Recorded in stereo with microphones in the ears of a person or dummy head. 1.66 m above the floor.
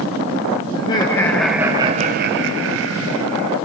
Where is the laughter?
30° left (ahead or behind), 2.0 m; by 3.6 s 85° right, 3 m.